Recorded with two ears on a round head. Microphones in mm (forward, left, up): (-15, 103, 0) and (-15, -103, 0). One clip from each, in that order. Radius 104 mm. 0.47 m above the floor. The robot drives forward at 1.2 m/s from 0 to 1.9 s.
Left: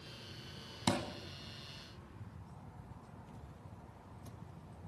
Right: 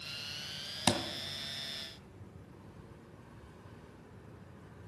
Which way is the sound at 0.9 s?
30° right (ahead or behind).